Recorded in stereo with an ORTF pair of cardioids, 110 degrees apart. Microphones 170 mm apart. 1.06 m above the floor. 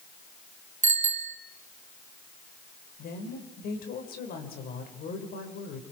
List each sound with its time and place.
0.8 s a bicycle bell: 45° right, 3 m
3.0 s a woman speaking: 60° left, 4.5 m